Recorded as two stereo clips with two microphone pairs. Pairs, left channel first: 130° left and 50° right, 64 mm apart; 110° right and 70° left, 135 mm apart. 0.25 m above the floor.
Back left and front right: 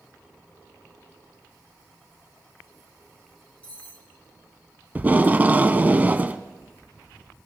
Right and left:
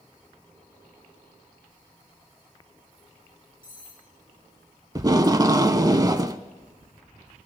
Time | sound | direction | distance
3.6 | cutlery clinking | 60° left | 7.5 m
5.0 | tape being pulled | 15° left | 0.6 m